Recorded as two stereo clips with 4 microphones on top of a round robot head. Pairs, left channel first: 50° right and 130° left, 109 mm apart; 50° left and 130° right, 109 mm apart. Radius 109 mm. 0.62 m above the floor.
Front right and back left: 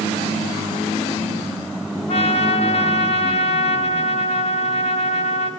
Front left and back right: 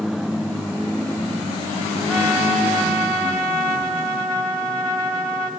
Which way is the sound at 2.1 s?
35° right.